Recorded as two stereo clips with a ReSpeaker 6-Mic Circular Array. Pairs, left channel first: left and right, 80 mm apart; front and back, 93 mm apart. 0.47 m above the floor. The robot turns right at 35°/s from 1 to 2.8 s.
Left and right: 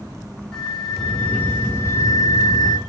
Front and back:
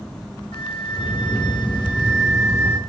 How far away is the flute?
About 3.5 m.